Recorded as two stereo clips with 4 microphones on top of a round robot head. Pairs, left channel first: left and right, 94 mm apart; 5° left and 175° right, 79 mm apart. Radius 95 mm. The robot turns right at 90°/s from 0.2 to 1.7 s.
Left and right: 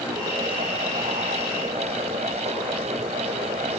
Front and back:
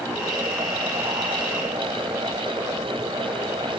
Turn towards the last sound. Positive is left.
No sound to turn to.